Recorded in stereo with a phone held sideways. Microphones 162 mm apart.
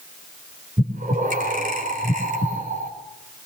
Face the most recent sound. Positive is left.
turn(degrees=-65)  # may be behind; listen again after turning